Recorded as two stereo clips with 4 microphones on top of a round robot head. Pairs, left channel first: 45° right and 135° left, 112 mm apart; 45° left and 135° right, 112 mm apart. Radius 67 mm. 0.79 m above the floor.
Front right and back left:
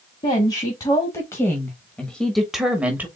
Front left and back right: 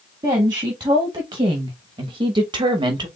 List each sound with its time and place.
0.2 s a woman speaking: 85° right, 1.7 m; by 3.1 s 160° right, 1.1 m